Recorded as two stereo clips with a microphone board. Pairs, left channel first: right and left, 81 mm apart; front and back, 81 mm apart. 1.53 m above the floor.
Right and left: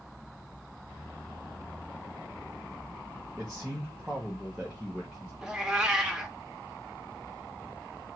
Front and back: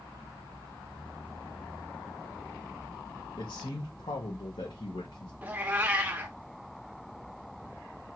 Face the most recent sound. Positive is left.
turn(degrees=155)